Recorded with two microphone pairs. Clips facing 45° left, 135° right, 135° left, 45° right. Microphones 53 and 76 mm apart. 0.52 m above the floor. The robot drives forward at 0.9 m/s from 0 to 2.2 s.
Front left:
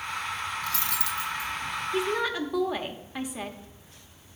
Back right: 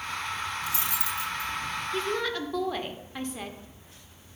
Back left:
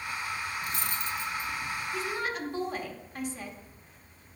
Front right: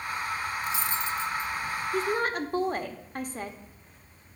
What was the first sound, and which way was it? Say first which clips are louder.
Cutlery clinking: front left 1 dB, front right 4 dB; 155° left.